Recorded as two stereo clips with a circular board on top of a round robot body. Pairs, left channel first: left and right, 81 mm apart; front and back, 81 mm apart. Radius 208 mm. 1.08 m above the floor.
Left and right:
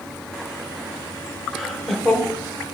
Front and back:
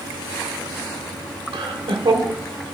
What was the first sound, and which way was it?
Laughter, straight behind.